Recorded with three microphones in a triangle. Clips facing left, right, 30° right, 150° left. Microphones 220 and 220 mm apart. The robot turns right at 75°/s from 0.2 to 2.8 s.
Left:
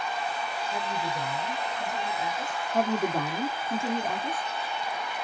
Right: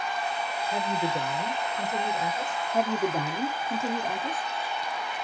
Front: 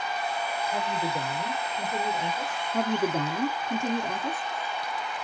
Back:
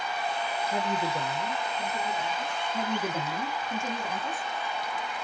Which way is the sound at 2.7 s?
10° right.